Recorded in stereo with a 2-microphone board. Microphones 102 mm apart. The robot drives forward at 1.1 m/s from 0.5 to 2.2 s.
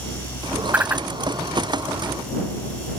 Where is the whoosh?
20° right (ahead or behind); by 1.1 s 15° right (ahead or behind).